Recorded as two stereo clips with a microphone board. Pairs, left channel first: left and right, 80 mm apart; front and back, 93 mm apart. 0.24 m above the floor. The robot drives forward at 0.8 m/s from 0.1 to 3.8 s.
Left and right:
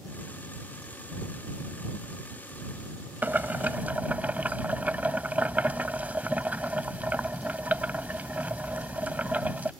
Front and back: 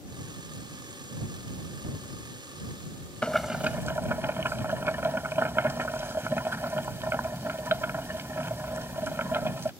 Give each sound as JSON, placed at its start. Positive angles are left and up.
{"t": 3.2, "sound": "boiling", "azimuth_deg": -60}